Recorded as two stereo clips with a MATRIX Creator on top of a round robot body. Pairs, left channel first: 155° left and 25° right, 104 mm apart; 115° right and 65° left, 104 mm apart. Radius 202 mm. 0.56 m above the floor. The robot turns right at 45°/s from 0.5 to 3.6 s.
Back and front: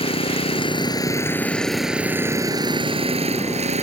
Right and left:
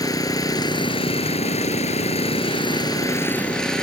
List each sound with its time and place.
0.0 s an engine running: 170° right; by 3.8 s 30° right